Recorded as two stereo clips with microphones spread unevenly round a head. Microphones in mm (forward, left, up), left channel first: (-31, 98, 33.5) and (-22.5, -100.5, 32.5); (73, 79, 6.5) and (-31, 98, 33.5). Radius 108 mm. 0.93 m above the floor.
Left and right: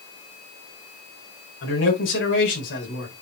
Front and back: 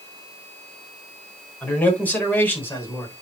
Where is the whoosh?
No whoosh in this recording.